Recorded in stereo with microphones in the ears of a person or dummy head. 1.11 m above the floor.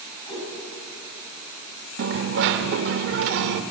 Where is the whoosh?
25° left (ahead or behind), 7 m.